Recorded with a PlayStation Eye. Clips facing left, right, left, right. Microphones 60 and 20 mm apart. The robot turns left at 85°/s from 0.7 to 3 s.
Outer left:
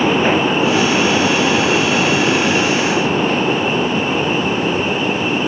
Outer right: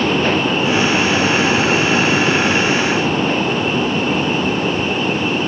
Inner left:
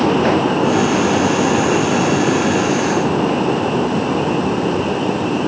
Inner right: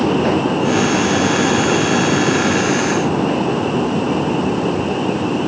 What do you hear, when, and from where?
Only background noise.